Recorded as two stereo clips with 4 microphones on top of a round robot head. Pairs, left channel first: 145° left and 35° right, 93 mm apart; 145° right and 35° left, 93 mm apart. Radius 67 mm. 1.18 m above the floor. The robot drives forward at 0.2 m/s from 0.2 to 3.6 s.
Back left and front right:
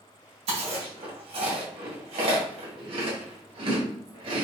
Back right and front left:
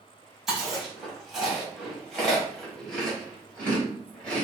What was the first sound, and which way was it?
Chewing, 50° right.